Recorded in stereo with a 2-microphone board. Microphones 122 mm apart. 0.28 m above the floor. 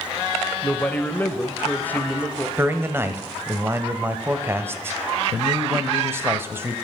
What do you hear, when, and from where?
0.6 s a man speaking: 15° left (ahead or behind), 0.9 m
2.6 s a man speaking: 20° right (ahead or behind), 1.0 m